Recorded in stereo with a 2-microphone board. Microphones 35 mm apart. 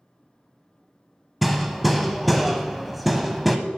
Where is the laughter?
I don't hear laughter.